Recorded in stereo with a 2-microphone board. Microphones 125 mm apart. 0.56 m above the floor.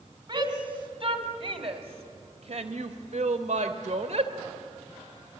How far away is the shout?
About 3.5 m.